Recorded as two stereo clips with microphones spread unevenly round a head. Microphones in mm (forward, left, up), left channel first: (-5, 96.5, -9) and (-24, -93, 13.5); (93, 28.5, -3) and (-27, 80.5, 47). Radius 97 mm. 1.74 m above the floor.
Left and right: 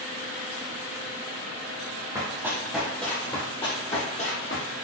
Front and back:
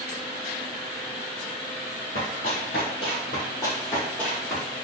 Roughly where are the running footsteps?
Ahead right.